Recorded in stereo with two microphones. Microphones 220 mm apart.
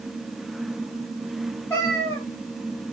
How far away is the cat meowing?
About 1.6 m.